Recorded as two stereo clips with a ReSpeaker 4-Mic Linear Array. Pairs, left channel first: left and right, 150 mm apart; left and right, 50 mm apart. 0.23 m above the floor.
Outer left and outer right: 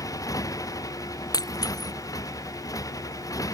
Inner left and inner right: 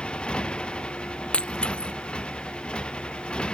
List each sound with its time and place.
0.0 s a motorcycle: 20° left (ahead or behind)
1.3 s breaking glass: 25° left (ahead or behind)